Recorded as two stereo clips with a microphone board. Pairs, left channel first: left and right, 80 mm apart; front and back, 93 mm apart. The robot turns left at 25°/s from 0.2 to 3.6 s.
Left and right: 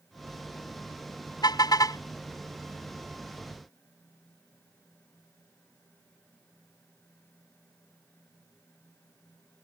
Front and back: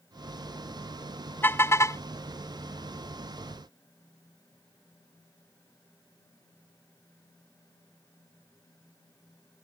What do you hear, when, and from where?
1.4 s a car horn: 65° left; by 2.0 s 50° left